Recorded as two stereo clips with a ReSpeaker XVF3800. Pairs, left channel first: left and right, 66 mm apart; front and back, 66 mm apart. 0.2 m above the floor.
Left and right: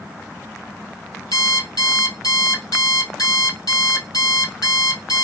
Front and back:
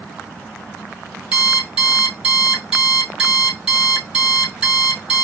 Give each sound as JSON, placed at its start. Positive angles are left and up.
{"t": 1.3, "sound": "an alarm clock", "azimuth_deg": 100, "distance_m": 2.0}